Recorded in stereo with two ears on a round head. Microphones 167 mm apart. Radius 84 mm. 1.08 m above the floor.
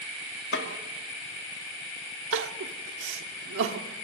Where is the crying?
80° right, 1.4 m.